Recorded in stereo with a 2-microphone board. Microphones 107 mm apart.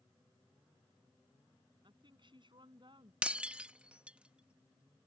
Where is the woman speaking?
50° right (ahead or behind).